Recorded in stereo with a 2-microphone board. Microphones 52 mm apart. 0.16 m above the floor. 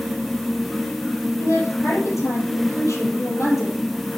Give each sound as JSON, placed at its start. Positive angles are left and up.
{"t": 1.4, "sound": "a woman speaking", "side_deg": 70, "distance_m": 3.5}